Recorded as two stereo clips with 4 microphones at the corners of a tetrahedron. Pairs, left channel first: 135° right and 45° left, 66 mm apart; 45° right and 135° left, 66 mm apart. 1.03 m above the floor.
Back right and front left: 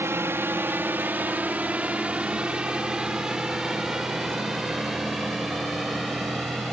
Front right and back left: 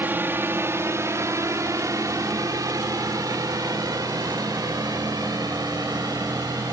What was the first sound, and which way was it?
A drone, 85° left.